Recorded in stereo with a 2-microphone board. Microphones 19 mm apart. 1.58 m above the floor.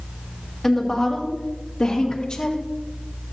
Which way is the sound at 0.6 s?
15° left (ahead or behind).